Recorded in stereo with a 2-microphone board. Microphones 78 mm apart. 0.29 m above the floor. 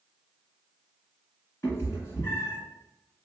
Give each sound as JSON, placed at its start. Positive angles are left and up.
{"t": 1.6, "sound": "a cat meowing", "side_deg": 35, "distance_m": 1.5}